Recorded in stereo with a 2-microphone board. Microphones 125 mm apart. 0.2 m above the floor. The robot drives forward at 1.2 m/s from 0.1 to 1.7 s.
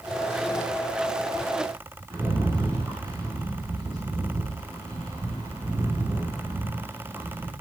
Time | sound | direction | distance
2.1 | a rattle | 40° right (ahead or behind) | 3 m